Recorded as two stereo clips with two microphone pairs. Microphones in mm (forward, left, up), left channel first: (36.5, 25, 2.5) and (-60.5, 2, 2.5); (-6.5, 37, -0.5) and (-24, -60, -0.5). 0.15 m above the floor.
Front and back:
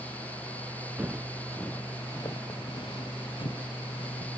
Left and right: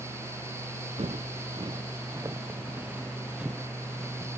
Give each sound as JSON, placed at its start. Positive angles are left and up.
{"t": 1.0, "sound": "footsteps", "azimuth_deg": -95, "distance_m": 1.0}